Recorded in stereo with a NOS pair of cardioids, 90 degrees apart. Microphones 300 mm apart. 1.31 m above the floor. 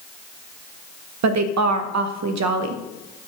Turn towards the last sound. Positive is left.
turn(degrees=-65)